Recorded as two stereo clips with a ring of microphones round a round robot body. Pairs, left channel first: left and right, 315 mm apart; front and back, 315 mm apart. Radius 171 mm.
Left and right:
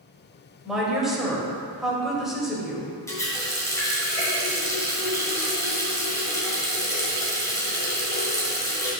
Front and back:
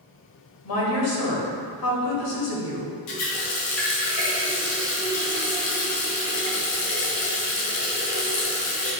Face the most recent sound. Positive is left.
turn(degrees=10)